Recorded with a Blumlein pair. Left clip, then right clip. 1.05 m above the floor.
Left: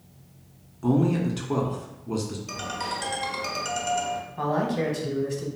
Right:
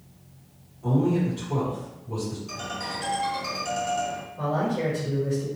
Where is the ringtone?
65° left, 0.9 m.